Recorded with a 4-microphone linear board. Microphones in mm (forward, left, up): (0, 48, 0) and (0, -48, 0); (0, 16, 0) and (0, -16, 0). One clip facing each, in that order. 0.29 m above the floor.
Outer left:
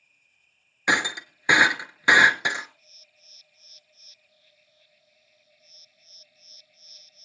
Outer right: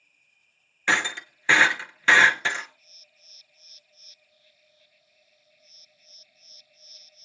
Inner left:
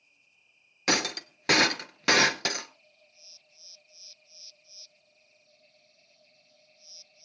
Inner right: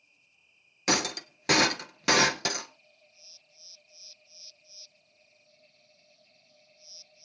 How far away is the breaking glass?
About 1.1 m.